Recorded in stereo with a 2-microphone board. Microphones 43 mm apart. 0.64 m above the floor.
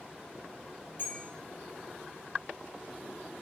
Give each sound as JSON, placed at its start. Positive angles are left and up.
{"t": 1.0, "sound": "a bell", "side_deg": 60, "distance_m": 3.0}